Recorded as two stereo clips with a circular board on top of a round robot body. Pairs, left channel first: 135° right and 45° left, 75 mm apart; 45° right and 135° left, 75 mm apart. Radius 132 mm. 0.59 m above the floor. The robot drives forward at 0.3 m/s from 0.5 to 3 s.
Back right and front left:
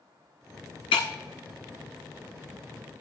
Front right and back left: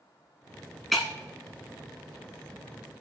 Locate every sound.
0.9 s breaking glass: 135° right, 0.8 m